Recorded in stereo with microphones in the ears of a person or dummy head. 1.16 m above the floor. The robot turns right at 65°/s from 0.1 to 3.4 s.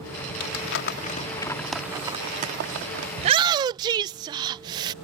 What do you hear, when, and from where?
0.4 s crumpling: 85° left; by 3.1 s 85° right
3.2 s a shout: 40° right (ahead or behind); by 4.9 s 30° right (ahead or behind)